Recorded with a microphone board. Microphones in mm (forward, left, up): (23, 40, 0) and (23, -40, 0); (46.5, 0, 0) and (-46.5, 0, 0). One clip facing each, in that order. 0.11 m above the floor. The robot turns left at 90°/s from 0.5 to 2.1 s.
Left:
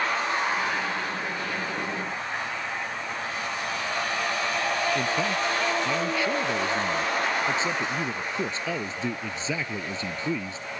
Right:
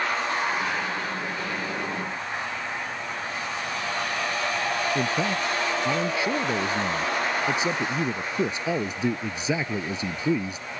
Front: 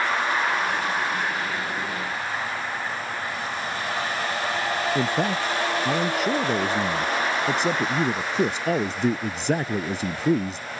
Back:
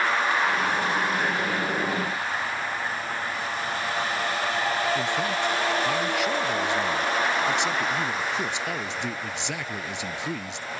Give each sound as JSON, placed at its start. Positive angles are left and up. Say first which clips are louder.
{"t": 5.0, "sound": "a man speaking", "louder": "right 1 dB, front 2 dB", "azimuth_deg": -25}